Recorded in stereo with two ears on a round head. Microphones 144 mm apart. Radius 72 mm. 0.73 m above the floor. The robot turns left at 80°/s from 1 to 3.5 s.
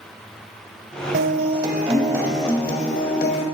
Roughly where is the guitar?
Right.